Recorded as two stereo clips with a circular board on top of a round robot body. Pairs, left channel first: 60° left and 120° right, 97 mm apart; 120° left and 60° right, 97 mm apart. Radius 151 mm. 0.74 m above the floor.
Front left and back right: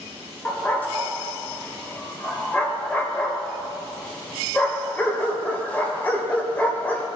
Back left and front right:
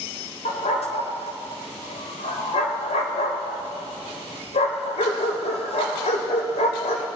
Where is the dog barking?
135° left, 1.4 m.